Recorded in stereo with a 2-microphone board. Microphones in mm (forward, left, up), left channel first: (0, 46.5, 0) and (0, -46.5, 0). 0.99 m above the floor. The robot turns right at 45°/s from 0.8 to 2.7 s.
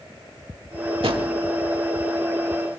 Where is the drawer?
80° right, 1.3 m; by 1.3 s 75° right (ahead or behind), 1.3 m.